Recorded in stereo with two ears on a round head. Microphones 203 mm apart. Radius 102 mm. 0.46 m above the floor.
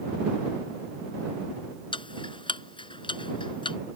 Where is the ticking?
25° left (ahead or behind).